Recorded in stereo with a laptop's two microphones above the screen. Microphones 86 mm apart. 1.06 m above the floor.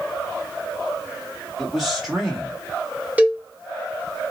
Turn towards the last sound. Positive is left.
turn(degrees=-15)  # may be behind; listen again after turning